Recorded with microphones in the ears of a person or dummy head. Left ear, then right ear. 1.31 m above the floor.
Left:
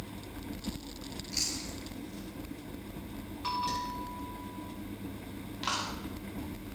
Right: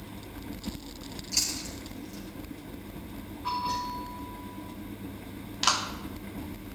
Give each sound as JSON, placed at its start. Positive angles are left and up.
{"t": 1.3, "sound": "chewing", "side_deg": -15, "distance_m": 6.0}
{"t": 3.4, "sound": "a bell", "side_deg": 80, "distance_m": 8.0}
{"t": 5.6, "sound": "a clap", "side_deg": -40, "distance_m": 2.5}